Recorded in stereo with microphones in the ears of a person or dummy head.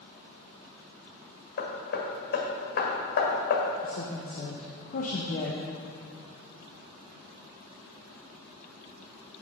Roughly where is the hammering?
Left.